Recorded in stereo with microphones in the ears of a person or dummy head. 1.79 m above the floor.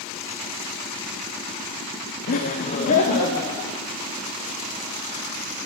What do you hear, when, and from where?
2.3 s laughter: 45° left (ahead or behind), 0.7 m